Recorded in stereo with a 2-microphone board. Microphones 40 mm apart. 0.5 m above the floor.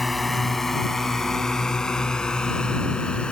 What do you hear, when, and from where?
0.0 s a drone: centre (ahead or behind); by 3.3 s 25° left (ahead or behind)